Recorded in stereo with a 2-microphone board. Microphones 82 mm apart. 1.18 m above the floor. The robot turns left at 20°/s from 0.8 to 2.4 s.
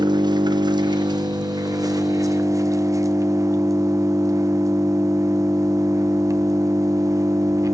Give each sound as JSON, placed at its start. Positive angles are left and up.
{"t": 0.0, "sound": "an engine running", "azimuth_deg": -100, "distance_m": 0.7}